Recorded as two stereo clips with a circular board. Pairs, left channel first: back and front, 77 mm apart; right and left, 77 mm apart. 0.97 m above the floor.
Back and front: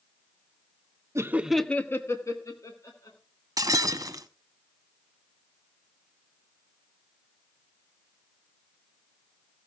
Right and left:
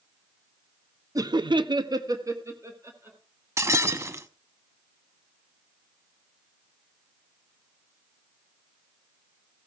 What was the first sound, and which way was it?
Laughter, 50° left.